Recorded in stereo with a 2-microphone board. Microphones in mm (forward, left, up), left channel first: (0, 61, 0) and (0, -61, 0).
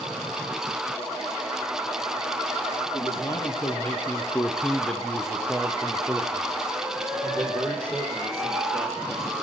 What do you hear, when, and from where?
2.9 s a man speaking: 25° left (ahead or behind), 3 m; by 9.4 s 25° right (ahead or behind), 7 m